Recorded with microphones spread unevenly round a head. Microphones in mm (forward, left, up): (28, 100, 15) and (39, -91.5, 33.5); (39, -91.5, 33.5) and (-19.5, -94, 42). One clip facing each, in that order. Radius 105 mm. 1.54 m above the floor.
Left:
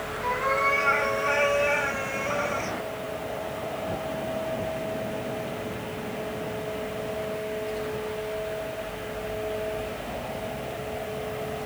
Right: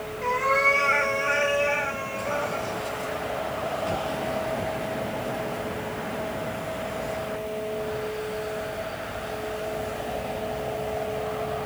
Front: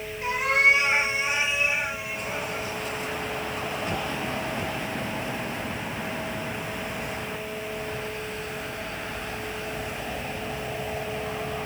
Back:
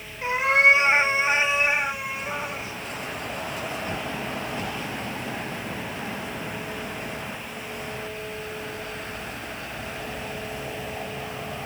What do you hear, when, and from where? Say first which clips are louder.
0.2 s a cat meowing: right 3 dB, back 3 dB; 120° right, 2.5 m; by 2.7 s 130° left, 1.8 m